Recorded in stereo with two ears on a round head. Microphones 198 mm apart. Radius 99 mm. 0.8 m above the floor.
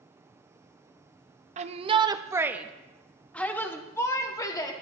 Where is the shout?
35° right (ahead or behind), 0.7 m; by 4.7 s 20° left (ahead or behind), 1.6 m.